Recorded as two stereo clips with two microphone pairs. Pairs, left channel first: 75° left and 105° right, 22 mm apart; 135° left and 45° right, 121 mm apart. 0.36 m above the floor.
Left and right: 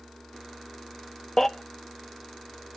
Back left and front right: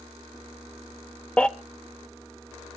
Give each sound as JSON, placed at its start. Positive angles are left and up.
{"t": 1.4, "sound": "a baby crying", "azimuth_deg": 85, "distance_m": 0.6}